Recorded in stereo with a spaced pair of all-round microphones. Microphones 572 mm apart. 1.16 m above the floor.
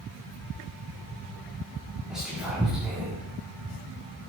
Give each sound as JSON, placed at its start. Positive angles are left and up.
{"t": 2.1, "sound": "whispering", "side_deg": 0, "distance_m": 2.0}